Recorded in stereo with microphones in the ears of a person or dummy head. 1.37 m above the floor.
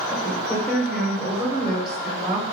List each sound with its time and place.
0.1 s a woman speaking: centre (ahead or behind), 1.2 m